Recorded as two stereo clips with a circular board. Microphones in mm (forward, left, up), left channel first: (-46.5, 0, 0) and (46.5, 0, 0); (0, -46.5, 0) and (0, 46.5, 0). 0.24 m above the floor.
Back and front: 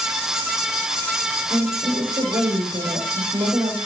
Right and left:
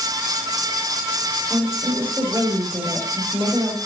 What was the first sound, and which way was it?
A woman speaking, 20° left.